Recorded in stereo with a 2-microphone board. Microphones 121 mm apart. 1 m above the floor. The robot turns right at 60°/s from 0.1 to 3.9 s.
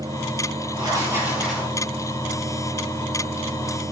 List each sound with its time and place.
0.7 s writing: 45° right, 9 m; by 1.7 s 15° left, 9 m